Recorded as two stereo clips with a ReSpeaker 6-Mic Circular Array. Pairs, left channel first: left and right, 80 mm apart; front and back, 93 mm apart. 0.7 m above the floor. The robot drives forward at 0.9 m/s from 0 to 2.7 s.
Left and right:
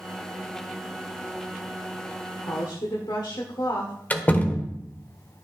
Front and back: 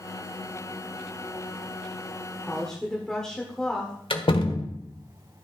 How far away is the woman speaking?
About 1.9 m.